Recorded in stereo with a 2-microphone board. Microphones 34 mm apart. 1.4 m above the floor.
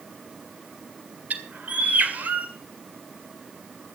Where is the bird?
55° right (ahead or behind), 2 m.